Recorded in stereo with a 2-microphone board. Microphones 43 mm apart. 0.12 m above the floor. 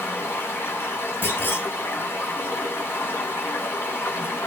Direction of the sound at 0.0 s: 70° left (ahead or behind).